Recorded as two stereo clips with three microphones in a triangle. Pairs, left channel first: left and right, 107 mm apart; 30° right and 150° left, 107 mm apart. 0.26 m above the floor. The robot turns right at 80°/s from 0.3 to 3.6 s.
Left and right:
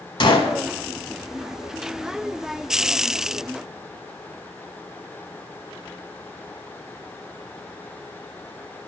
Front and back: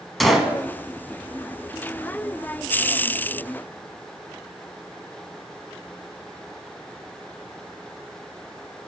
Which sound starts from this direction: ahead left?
A gunshot, at 0.2 s.